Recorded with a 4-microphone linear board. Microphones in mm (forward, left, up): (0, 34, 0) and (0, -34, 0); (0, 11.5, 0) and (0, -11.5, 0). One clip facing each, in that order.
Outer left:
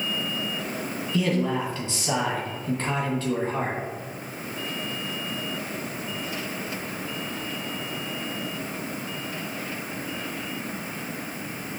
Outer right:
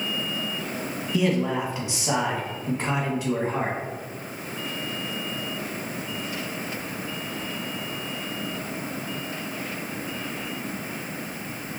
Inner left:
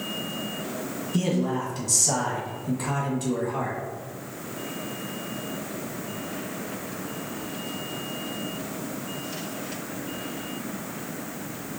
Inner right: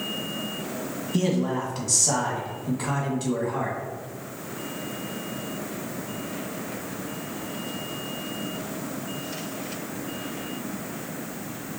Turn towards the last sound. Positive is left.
turn(degrees=-15)  # may be behind; listen again after turning